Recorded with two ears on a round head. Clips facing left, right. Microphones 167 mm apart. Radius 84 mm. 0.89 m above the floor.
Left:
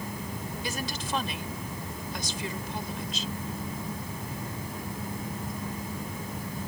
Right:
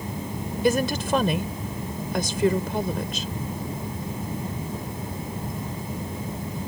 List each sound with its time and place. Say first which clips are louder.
0.6 s a woman speaking: right 15 dB; 50° right (ahead or behind)